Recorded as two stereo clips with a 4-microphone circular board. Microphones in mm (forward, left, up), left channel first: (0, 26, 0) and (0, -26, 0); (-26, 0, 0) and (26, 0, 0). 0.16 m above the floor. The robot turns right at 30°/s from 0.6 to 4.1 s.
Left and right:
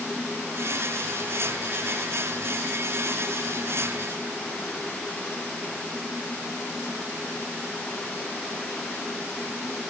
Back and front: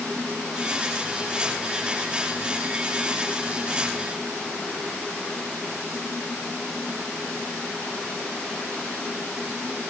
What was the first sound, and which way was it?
Only background noise.